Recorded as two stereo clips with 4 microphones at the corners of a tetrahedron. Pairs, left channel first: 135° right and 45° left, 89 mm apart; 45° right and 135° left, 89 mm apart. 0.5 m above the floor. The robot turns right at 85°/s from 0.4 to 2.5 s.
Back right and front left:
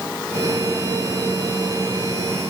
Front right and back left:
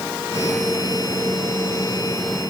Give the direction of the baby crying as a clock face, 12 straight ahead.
No baby crying in this recording.